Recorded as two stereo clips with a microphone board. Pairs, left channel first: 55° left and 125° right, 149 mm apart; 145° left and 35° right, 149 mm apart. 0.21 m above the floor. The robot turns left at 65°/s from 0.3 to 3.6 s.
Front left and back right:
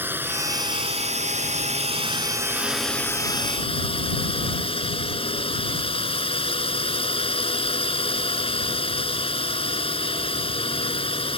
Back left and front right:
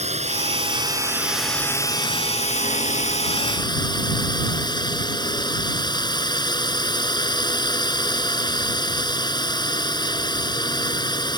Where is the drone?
50° right; by 11.4 s 95° left.